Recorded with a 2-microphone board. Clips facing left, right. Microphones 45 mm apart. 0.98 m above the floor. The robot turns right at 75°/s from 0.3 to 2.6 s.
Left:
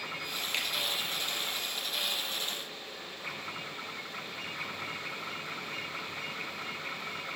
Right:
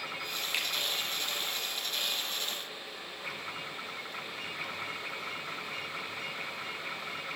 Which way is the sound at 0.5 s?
10° right (ahead or behind).